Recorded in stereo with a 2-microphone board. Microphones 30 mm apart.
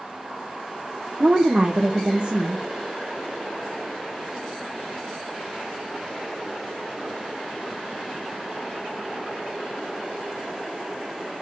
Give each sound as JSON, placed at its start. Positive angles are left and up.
{"t": 1.2, "sound": "a woman speaking", "side_deg": -40, "distance_m": 0.6}